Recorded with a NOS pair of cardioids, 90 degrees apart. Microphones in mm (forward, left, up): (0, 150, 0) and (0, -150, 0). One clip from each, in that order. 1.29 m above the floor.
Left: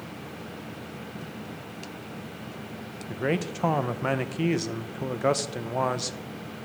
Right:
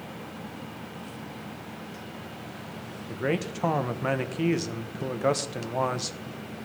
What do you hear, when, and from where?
3.1 s a man speaking: 5° left, 0.6 m